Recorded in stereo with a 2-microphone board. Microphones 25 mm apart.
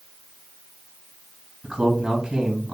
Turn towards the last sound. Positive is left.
turn(degrees=-35)  # may be behind; listen again after turning